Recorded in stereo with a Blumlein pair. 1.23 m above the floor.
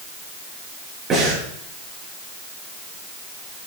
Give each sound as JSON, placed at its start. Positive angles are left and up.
{"t": 1.1, "sound": "breathing", "azimuth_deg": -25, "distance_m": 7.5}